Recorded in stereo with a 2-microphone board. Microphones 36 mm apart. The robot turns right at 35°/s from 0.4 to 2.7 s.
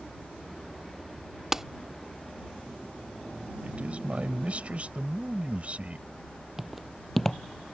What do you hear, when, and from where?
1.5 s a clap: 15° right (ahead or behind); by 1.6 s 10° right (ahead or behind)
3.6 s a man speaking: 35° right (ahead or behind)
6.6 s footsteps: 5° right (ahead or behind); by 7.7 s 20° left (ahead or behind)